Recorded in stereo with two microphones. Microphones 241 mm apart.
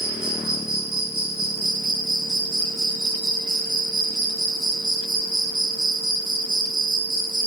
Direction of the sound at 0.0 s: 65° right (ahead or behind).